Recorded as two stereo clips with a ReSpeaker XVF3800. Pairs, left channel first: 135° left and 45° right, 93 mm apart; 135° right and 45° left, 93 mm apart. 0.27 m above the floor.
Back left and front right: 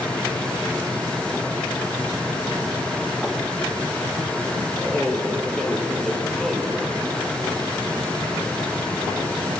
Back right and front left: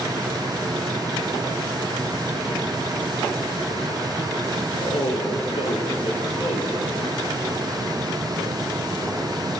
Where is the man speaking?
140° right, 4.5 m.